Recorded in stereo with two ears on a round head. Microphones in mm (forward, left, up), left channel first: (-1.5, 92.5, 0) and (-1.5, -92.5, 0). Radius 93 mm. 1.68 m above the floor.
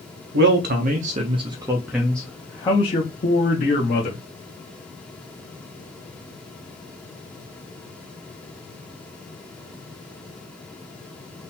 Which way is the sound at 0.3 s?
60° right (ahead or behind).